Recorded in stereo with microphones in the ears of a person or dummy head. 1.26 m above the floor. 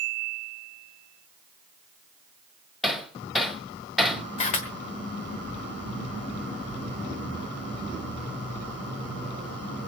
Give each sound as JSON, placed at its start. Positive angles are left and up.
{"t": 2.8, "sound": "hammering", "side_deg": 5, "distance_m": 2.5}
{"t": 4.4, "sound": "a camera shutter", "side_deg": 30, "distance_m": 1.3}